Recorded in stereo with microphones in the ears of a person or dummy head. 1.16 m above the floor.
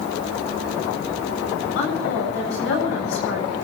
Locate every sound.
1.8 s a woman speaking: 70° left (ahead or behind), 7.5 m